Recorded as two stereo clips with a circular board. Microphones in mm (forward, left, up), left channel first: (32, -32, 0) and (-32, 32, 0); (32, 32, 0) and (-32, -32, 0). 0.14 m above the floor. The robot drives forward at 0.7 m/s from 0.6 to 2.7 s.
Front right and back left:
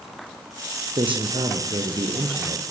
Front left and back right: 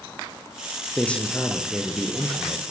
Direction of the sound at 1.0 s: 120° left.